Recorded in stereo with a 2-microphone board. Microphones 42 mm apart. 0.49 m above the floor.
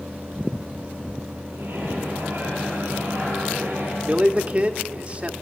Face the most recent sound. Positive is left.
turn(degrees=-30)  # may be behind; listen again after turning